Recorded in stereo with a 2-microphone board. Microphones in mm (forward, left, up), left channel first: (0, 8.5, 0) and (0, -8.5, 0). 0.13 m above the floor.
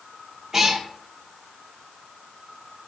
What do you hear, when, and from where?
0.5 s a cat meowing: 25° right (ahead or behind), 1.7 m